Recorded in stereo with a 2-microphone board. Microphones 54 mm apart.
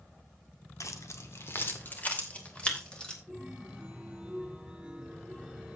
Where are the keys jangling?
75° left (ahead or behind), 1.7 m; by 3.2 s 15° left (ahead or behind), 3.5 m.